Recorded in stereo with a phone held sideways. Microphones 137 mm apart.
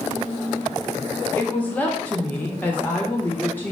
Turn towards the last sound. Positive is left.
turn(degrees=10)  # may be behind; listen again after turning